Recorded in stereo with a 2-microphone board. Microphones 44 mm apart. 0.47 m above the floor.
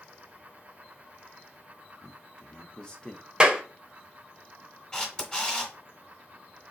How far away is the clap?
About 0.8 m.